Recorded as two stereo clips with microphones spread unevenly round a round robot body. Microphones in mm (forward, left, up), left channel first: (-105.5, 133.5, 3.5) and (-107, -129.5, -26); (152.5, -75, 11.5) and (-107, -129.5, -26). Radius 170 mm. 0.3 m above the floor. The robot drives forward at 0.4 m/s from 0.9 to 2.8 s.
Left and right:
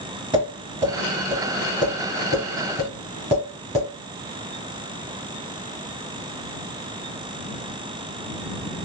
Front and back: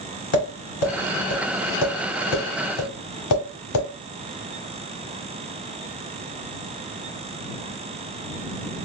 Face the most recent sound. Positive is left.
turn(degrees=-20)